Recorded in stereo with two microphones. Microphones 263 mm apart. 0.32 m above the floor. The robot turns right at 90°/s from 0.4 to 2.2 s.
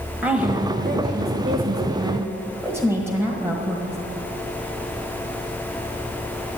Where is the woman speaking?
175° right, 1.4 m; by 4.0 s 10° right, 1.4 m.